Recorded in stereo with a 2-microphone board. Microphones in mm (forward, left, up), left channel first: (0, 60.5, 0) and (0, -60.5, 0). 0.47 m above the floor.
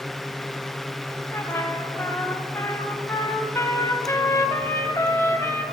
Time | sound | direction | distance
1.3 | a trumpet | 25° left (ahead or behind) | 0.8 m